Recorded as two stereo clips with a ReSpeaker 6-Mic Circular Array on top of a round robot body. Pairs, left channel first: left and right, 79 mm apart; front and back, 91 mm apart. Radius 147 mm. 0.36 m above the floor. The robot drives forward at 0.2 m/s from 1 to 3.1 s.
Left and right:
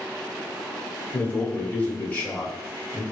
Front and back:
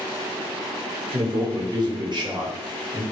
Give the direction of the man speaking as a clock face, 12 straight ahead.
7 o'clock.